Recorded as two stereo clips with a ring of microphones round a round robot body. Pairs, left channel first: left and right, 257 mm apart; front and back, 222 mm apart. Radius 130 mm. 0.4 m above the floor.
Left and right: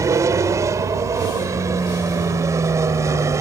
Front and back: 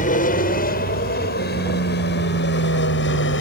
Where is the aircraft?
20° right; by 3.4 s 15° right.